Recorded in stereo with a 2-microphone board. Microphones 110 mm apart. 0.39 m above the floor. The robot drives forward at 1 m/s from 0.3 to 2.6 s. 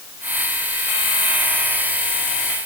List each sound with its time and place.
Only background noise.